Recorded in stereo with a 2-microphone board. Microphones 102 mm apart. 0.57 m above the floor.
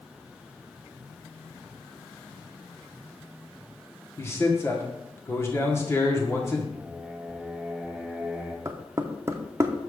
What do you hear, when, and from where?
4.2 s a man speaking: 25° left (ahead or behind), 1.6 m
6.7 s singing: centre (ahead or behind), 1.5 m
8.7 s knocking: 30° right (ahead or behind), 0.7 m